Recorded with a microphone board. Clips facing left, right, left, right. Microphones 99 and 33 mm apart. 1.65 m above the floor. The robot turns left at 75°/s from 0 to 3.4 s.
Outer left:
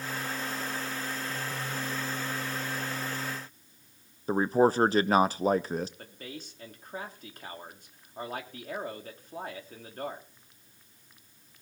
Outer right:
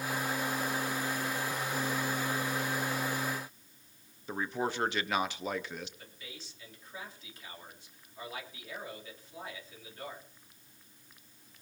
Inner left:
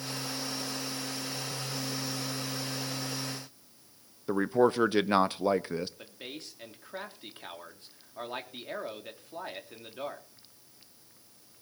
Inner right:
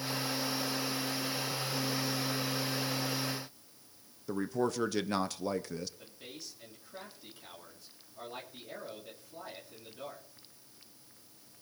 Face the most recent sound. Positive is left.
turn(degrees=50)  # may be behind; listen again after turning